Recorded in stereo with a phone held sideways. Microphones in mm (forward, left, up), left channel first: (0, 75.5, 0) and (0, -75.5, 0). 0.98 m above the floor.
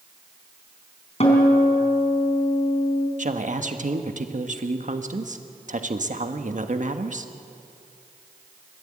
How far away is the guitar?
About 3.5 m.